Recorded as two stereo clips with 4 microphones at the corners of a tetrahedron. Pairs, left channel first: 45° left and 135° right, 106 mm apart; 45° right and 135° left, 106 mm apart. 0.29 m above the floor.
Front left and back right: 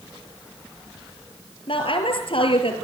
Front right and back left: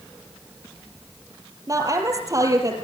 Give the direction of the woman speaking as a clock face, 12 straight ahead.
9 o'clock.